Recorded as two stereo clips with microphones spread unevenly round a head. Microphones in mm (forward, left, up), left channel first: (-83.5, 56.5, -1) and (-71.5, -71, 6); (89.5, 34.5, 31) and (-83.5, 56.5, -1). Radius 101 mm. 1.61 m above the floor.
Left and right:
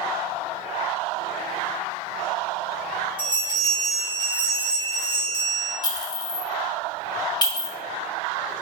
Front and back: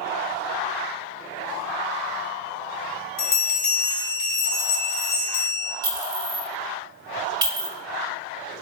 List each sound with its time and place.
3.2 s a bell: 15° right, 0.9 m
5.8 s a clink: 105° left, 1.0 m